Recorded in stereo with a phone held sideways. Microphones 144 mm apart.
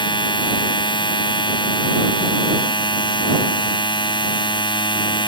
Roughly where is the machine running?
Left.